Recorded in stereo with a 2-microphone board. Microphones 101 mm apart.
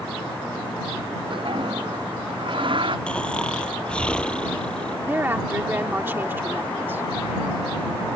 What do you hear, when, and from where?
1.3 s a toilet flushing: 60° right (ahead or behind)
3.1 s snoring: 10° left (ahead or behind)
5.1 s a woman speaking: 20° right (ahead or behind)